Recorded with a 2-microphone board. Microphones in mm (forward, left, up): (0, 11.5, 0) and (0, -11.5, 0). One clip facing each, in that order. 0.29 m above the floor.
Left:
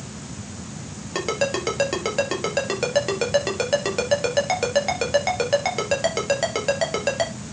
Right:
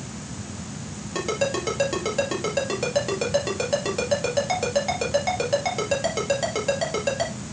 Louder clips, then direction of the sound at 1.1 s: Left 1 dB; 25° left (ahead or behind).